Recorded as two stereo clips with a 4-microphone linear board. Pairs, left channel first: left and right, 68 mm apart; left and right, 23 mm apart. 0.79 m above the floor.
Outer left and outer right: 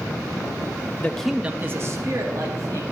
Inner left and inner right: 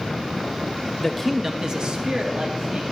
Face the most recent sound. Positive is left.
turn(degrees=-55)  # may be behind; listen again after turning